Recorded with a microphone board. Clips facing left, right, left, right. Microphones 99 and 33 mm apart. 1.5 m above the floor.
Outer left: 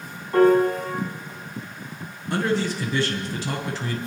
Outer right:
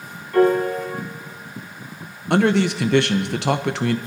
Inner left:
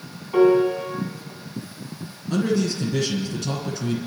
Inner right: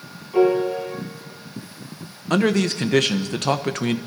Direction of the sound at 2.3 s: 70° right (ahead or behind).